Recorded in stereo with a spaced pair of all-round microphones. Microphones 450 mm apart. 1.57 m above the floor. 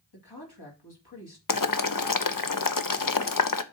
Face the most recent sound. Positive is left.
turn(degrees=45)  # may be behind; listen again after turning